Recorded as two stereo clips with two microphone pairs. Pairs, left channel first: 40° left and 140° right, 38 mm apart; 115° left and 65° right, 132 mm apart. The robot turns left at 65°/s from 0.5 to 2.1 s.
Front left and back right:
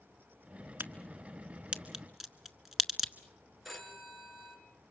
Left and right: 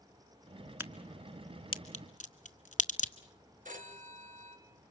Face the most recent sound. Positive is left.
turn(degrees=-55)